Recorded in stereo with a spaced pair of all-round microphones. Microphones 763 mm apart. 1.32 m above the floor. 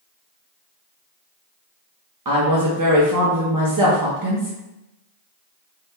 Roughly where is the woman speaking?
Right.